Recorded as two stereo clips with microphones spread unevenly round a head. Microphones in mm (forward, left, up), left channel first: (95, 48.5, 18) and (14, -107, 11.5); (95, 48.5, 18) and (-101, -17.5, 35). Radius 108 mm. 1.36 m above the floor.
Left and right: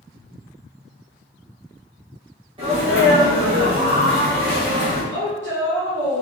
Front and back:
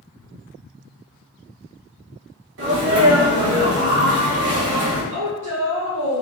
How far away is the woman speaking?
About 0.9 m.